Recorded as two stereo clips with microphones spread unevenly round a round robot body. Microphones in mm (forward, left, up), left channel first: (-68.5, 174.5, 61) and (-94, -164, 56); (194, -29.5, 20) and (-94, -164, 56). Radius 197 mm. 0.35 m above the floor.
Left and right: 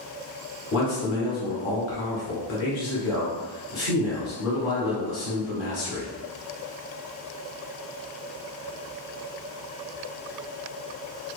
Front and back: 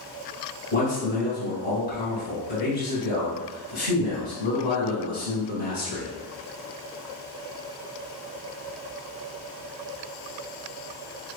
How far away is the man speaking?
About 1.4 m.